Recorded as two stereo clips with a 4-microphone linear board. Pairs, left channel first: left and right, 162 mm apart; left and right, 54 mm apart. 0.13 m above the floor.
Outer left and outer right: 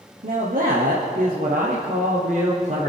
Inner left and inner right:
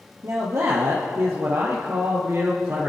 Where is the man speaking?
70° right (ahead or behind), 3 m; by 2.9 s 40° right (ahead or behind), 2.5 m.